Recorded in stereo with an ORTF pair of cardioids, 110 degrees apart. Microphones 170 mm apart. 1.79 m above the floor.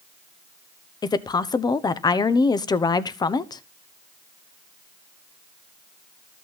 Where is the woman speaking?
25° left, 1.0 m.